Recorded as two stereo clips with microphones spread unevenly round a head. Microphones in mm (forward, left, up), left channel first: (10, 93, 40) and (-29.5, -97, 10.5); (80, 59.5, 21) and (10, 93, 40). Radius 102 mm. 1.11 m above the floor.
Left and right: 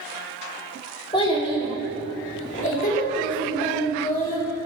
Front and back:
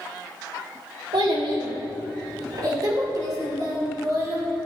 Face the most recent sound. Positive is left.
turn(degrees=120)